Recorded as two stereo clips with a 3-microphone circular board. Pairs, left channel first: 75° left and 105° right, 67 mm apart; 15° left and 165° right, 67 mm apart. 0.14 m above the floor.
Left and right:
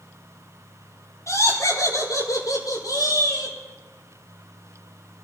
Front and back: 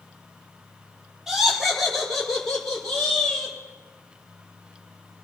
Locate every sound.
1.3 s laughter: 105° left, 4.5 m; by 3.5 s 90° left, 7 m